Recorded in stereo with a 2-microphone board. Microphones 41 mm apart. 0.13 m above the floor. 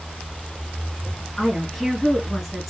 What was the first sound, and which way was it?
A woman speaking, 5° left (ahead or behind).